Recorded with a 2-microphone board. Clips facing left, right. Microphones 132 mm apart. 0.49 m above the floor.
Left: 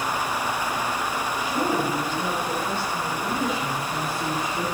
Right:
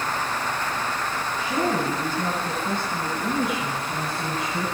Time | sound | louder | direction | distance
1.4 | a woman speaking | right 1 dB | 25° right (ahead or behind) | 3.5 m